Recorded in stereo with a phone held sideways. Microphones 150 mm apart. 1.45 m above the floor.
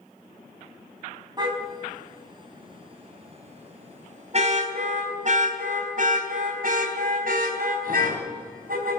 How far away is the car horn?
About 4 m.